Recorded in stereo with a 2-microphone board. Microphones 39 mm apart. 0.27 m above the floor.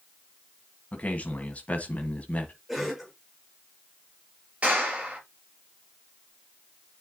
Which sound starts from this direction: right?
A clap, at 4.6 s.